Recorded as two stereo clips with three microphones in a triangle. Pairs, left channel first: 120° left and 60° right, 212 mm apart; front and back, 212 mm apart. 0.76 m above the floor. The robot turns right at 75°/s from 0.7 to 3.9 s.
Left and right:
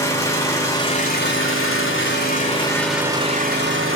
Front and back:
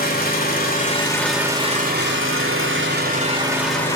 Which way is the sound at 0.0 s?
45° left.